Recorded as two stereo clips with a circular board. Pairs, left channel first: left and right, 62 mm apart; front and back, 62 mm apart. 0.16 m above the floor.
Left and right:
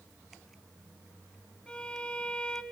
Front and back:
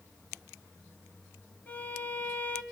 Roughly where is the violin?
Ahead left.